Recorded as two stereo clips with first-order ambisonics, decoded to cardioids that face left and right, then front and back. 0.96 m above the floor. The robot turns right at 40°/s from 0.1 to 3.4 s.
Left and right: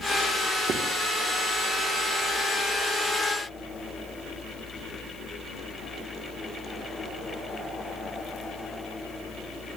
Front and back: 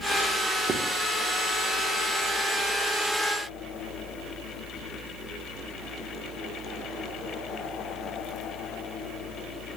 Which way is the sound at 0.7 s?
125° right.